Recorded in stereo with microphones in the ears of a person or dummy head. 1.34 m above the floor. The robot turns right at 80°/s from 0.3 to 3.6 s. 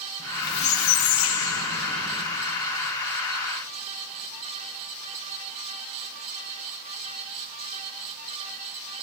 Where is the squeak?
20° left, 3.5 m; by 2.3 s straight behind, 3.5 m.